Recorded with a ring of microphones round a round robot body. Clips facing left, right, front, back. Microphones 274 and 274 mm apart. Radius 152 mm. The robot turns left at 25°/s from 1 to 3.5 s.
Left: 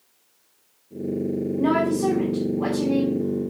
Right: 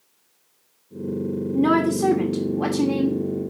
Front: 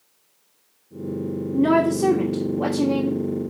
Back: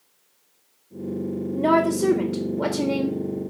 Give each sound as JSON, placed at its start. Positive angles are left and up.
{"t": 1.5, "sound": "a woman speaking", "azimuth_deg": -65, "distance_m": 1.5}